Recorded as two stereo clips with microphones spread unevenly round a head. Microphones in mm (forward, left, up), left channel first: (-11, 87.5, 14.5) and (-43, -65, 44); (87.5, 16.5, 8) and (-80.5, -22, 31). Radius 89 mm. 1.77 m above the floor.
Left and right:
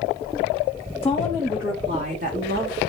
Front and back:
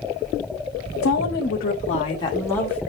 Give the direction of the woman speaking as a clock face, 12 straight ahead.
12 o'clock.